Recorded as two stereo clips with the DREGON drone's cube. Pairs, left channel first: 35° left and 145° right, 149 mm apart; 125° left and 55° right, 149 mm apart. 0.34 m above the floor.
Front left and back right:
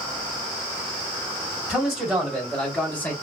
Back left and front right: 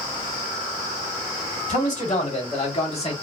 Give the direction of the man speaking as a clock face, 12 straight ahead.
8 o'clock.